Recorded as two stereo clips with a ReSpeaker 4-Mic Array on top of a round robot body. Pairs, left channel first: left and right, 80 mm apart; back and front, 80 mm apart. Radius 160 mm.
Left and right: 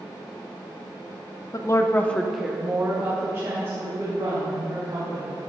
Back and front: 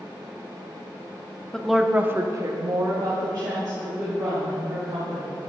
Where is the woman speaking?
100° left, 1.1 m; by 5.5 s 40° right, 4.5 m.